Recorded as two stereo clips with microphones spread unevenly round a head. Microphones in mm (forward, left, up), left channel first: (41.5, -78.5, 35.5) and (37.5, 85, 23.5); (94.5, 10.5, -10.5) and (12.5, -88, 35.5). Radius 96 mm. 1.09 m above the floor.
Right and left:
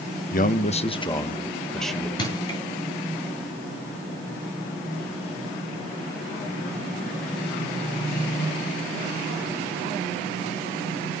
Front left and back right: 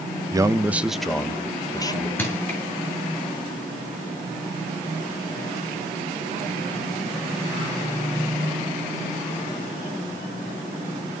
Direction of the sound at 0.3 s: 60° right.